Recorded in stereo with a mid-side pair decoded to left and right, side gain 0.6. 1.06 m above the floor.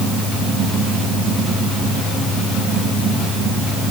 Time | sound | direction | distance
0.0 | a fan | 25° right | 3 m